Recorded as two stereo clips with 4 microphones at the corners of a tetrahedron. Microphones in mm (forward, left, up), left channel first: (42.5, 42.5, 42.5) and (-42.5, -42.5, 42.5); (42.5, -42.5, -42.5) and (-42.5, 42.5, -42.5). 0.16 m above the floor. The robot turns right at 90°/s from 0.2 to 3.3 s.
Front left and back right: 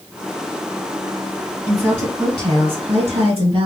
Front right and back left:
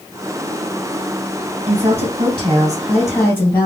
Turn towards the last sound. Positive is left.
turn(degrees=-110)